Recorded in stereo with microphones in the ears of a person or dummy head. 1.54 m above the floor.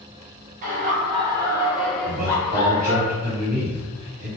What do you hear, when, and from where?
0.6 s laughter: 45° right (ahead or behind), 1.1 m; by 3.0 s 40° left (ahead or behind), 1.1 m
2.0 s a man speaking: 45° right (ahead or behind), 1.4 m